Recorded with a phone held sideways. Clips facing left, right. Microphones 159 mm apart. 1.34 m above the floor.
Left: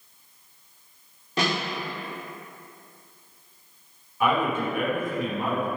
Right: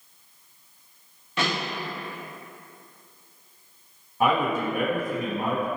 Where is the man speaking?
40° right (ahead or behind), 0.8 m.